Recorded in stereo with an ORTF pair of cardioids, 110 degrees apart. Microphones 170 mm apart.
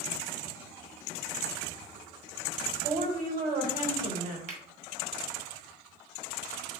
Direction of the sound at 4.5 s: 45° right.